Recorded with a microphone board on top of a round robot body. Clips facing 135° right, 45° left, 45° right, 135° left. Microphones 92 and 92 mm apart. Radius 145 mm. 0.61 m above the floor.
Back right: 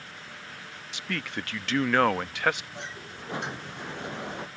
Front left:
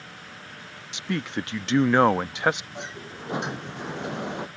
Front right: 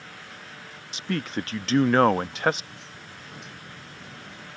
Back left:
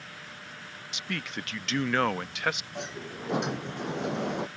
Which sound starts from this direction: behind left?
A sliding door, at 2.8 s.